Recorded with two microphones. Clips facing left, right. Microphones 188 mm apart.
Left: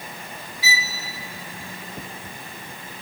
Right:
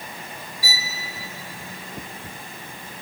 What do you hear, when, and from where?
0.6 s a violin: 60° right (ahead or behind), 1.6 m